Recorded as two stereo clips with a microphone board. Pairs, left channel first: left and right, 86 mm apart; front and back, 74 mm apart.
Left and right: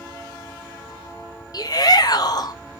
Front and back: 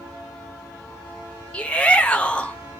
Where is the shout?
70° left, 0.6 m.